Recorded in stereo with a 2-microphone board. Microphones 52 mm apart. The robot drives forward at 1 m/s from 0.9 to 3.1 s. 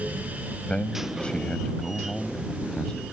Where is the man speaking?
20° left (ahead or behind); by 3.0 s 15° left (ahead or behind).